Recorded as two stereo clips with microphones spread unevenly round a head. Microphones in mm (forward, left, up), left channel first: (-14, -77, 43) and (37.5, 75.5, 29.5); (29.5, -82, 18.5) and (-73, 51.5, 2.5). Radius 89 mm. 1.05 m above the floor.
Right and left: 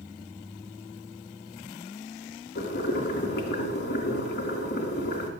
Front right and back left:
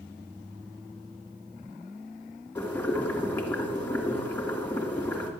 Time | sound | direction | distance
2.5 | boiling | 135° right | 2.5 m